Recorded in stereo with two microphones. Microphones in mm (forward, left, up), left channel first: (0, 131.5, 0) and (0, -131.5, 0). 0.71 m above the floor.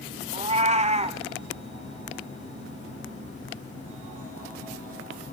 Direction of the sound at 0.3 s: 25° right (ahead or behind).